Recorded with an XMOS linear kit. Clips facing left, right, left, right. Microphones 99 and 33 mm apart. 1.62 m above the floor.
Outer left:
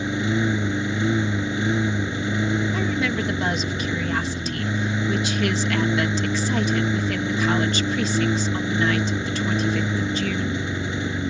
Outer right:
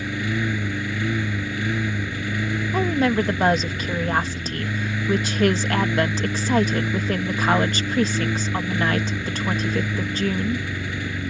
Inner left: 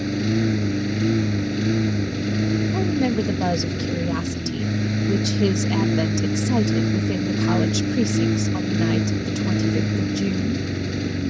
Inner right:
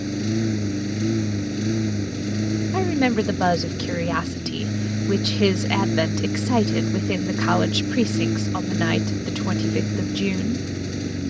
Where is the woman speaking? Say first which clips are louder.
Outer right 4 dB, inner right 5 dB; 40° right (ahead or behind).